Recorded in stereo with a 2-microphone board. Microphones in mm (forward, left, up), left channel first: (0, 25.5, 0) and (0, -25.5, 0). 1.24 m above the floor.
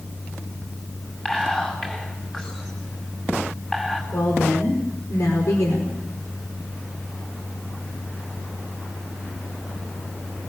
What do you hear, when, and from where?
1.2 s whispering: 15° left (ahead or behind), 7.5 m
4.1 s a woman speaking: 80° left, 5 m